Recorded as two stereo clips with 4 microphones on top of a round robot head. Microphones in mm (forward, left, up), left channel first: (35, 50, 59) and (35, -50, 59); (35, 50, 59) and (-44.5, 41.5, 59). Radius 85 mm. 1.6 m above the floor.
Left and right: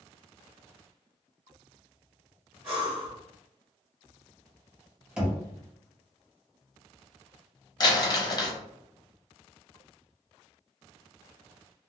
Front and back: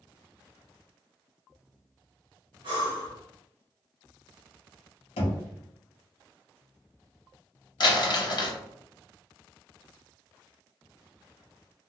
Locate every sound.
2.6 s breathing: 150° right, 1.2 m
5.2 s knocking: 10° right, 0.7 m
7.8 s crumpling: 40° left, 0.8 m